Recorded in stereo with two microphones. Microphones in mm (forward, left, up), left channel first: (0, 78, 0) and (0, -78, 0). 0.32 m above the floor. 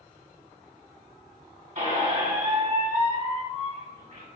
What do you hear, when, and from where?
1.8 s a squeak: 60° right (ahead or behind), 1.3 m